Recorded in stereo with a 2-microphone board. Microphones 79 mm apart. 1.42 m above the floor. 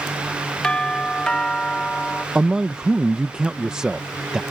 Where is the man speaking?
10° right (ahead or behind).